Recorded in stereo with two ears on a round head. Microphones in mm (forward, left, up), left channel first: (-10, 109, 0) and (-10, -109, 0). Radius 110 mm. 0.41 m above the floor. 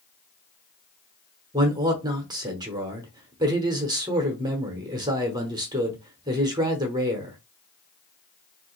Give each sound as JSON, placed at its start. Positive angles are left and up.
{"t": 1.5, "sound": "a man speaking", "side_deg": -15, "distance_m": 0.8}